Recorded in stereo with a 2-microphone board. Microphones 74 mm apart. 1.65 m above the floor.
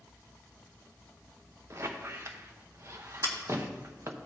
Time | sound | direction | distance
1.7 | a squeak | 40° right (ahead or behind) | 0.7 m
3.2 | scissors | 55° right (ahead or behind) | 1.8 m